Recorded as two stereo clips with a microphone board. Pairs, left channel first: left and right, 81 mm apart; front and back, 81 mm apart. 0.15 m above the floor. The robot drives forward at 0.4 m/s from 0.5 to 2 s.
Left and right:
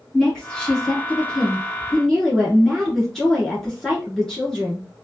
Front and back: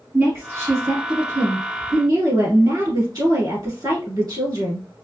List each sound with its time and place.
0.1 s a woman speaking: 160° left, 1.2 m; by 4.8 s 170° left, 1.6 m